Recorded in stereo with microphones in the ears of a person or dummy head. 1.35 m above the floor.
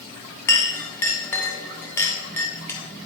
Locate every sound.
0.5 s a clink: 10° left (ahead or behind), 1.3 m